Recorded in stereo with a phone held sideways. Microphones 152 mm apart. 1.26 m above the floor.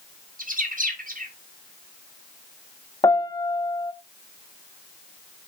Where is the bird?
65° right (ahead or behind), 1.6 m.